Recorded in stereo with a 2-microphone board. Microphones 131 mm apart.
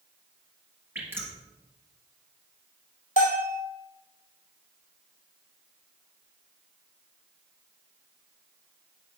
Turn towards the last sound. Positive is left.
turn(degrees=75)  # may be behind; listen again after turning